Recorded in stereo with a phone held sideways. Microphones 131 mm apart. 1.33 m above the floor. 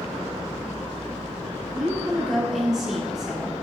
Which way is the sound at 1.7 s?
5° right (ahead or behind).